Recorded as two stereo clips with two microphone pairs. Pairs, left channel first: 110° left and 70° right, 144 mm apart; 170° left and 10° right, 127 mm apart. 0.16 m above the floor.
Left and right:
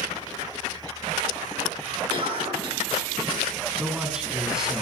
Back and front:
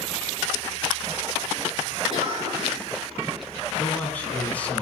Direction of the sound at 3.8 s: 145° right.